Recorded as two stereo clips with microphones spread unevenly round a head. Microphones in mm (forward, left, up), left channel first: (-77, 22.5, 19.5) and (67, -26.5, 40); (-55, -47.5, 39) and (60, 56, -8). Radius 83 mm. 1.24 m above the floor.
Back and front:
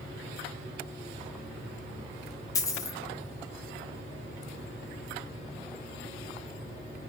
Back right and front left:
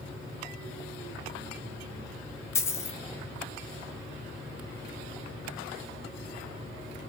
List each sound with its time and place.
2.5 s a dropped coin: 130° right, 0.6 m